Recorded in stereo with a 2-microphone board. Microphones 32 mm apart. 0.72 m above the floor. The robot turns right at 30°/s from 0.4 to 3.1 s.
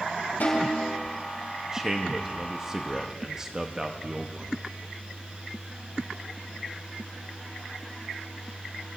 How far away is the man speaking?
About 0.8 m.